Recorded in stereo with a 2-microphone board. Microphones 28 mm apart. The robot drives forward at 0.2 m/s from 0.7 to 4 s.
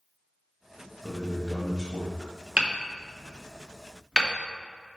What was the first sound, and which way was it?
A man speaking, 15° left (ahead or behind).